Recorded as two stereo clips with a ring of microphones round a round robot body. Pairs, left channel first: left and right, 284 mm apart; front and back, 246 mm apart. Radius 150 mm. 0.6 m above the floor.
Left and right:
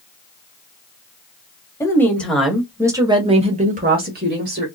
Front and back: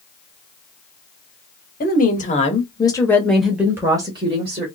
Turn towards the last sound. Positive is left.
turn(degrees=-125)